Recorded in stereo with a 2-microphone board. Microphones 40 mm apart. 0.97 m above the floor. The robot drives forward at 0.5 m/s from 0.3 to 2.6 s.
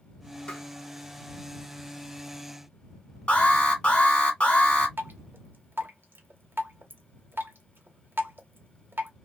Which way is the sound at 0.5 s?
25° left (ahead or behind).